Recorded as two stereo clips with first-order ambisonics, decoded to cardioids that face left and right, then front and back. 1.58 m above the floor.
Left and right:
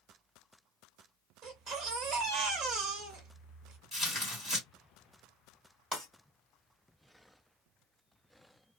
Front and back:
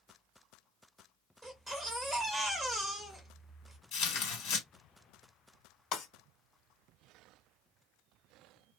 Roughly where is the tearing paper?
Ahead.